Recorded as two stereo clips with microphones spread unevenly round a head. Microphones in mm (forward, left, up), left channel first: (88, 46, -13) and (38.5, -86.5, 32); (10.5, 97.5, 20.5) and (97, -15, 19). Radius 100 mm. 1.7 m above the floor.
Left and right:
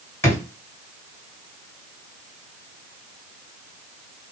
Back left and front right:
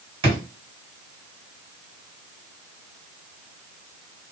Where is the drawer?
15° right, 2 m.